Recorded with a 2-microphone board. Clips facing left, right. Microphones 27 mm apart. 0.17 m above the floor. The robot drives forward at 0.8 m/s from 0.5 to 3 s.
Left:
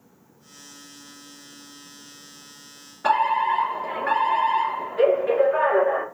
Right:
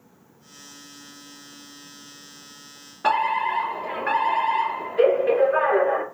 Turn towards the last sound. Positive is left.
turn(degrees=-5)  # may be behind; listen again after turning